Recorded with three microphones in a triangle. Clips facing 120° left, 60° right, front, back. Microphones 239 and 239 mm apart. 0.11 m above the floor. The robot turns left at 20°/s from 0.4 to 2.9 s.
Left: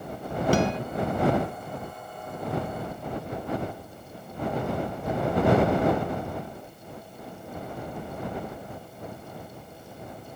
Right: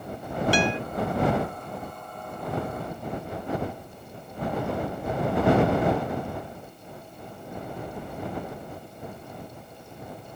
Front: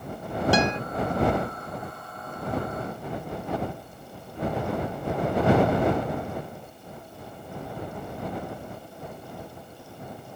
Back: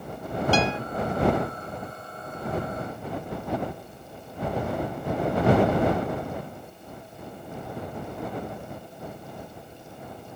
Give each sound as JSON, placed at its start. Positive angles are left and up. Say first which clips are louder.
{"t": 0.5, "sound": "a guitar", "louder": "left 2 dB, front 1 dB", "azimuth_deg": 75}